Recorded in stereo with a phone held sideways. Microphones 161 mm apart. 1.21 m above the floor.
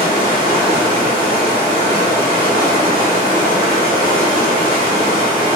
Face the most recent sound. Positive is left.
turn(degrees=55)  # may be behind; listen again after turning